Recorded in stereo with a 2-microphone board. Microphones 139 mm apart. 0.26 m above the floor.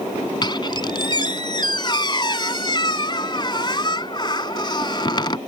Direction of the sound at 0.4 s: 35° left (ahead or behind).